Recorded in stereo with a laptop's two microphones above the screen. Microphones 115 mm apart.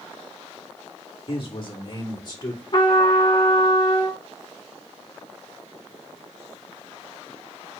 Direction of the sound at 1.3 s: 45° left (ahead or behind).